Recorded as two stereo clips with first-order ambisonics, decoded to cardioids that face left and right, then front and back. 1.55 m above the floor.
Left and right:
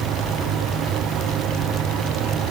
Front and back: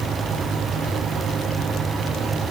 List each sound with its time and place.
Only background noise.